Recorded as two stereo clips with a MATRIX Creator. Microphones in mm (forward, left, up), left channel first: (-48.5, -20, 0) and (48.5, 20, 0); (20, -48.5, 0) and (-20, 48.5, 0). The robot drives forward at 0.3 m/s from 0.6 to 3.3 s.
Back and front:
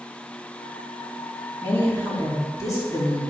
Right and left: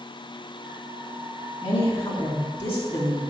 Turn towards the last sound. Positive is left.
turn(degrees=-105)